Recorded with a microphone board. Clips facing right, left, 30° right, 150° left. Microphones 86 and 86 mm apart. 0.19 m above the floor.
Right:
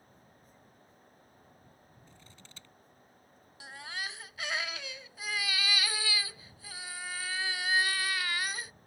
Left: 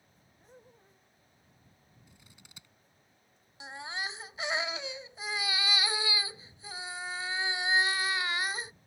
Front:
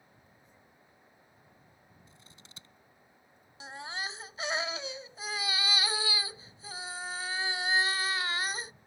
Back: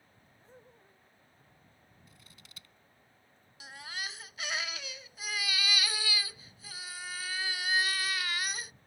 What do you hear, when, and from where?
0.4 s laughter: 115° left
2.1 s scissors: 20° left
3.6 s a baby crying: 25° left